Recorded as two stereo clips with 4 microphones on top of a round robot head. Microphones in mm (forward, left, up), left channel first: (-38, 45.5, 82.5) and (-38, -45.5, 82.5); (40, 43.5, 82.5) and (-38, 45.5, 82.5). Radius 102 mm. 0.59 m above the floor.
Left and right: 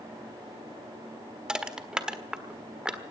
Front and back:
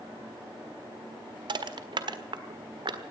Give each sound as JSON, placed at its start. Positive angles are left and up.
{"t": 1.5, "sound": "crushing", "azimuth_deg": -170, "distance_m": 1.6}